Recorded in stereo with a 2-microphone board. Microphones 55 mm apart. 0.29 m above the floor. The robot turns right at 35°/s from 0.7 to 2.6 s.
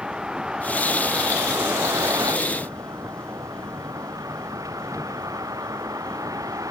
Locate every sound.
0.0 s a vehicle: 160° right; by 6.7 s 95° right